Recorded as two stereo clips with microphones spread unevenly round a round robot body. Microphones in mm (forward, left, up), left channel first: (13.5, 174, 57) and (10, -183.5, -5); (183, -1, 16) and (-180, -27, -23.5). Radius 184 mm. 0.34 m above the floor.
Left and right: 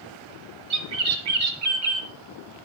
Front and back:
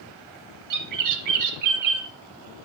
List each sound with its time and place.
0.7 s a bird: 140° right, 3 m